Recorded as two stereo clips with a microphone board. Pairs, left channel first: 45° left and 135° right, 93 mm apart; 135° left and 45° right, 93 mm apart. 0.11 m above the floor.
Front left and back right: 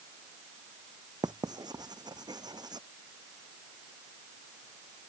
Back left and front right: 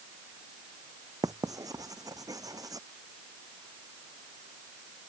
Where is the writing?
95° right.